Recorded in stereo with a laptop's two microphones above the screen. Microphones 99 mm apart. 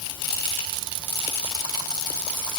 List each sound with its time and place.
Only background noise.